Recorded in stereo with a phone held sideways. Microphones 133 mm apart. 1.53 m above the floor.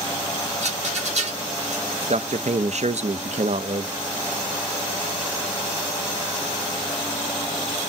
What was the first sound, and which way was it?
A rattle, 55° right (ahead or behind).